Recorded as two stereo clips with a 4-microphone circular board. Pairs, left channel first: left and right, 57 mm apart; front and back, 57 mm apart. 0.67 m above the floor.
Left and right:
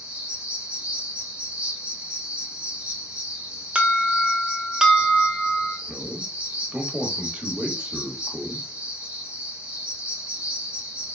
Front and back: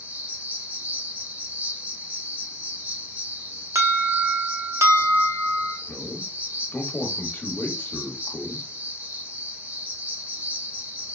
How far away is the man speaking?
About 1.1 m.